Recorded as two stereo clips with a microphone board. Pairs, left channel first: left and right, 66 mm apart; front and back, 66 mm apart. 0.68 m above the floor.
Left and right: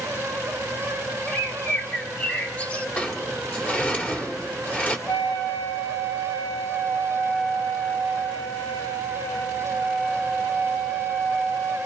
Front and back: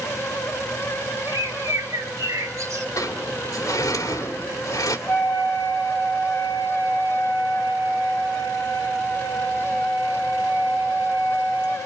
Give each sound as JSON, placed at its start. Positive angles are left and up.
{"t": 1.3, "sound": "a bird", "azimuth_deg": 155, "distance_m": 1.7}
{"t": 3.0, "sound": "a sliding door", "azimuth_deg": 25, "distance_m": 2.5}
{"t": 5.1, "sound": "a flute", "azimuth_deg": 45, "distance_m": 4.0}